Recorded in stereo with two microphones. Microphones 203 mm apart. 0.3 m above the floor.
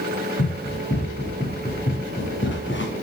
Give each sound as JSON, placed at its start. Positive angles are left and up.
{"t": 0.4, "sound": "running footsteps", "side_deg": 60, "distance_m": 7.5}